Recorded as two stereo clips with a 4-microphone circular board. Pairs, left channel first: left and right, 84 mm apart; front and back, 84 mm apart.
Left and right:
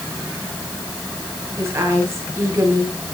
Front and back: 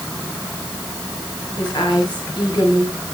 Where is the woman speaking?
35° right, 10 m.